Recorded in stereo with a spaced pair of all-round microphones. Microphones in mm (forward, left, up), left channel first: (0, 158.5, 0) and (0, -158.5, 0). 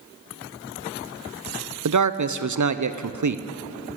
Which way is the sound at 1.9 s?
65° right (ahead or behind).